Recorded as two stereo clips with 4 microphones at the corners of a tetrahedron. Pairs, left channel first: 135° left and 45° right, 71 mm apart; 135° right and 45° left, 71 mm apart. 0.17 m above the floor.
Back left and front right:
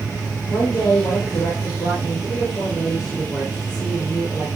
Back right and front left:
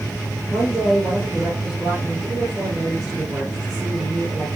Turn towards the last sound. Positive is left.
turn(degrees=85)